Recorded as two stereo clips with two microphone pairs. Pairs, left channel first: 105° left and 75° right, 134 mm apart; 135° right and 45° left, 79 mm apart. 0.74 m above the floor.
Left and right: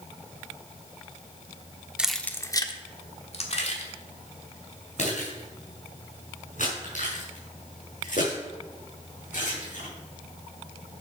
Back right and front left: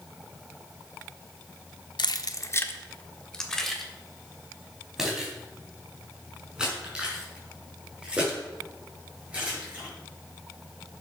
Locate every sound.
2.0 s keys jangling: 155° right, 0.8 m; by 9.9 s 120° left, 7.5 m